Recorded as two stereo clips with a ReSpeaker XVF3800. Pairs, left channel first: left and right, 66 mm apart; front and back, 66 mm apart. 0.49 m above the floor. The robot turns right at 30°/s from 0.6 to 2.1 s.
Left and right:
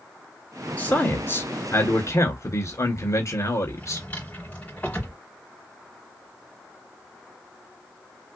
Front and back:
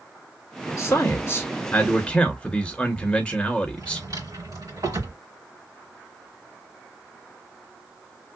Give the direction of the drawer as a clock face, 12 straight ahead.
7 o'clock.